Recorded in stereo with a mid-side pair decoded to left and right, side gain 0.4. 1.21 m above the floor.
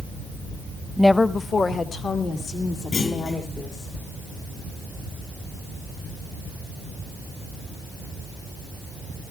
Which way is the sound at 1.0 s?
10° left.